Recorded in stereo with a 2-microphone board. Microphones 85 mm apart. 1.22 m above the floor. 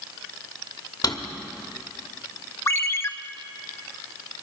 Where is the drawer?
50° left (ahead or behind), 1.2 m.